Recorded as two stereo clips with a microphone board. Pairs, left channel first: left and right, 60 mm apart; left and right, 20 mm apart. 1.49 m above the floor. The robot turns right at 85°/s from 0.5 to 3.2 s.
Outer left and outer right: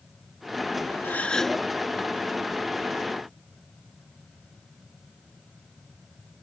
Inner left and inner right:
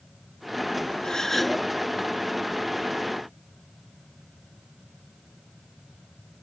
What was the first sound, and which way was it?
A gasp, 140° left.